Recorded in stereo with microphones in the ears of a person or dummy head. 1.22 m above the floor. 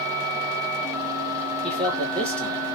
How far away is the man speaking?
About 1.4 m.